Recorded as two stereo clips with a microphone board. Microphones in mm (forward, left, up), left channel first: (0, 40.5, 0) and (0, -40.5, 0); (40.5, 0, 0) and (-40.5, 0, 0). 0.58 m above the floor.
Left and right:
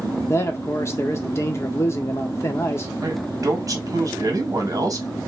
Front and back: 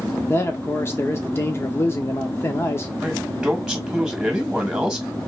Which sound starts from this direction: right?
A man speaking, at 3.0 s.